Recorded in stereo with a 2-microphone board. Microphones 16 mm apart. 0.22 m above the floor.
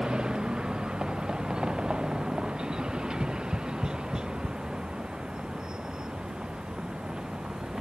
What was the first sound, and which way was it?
A vehicle, 70° right (ahead or behind).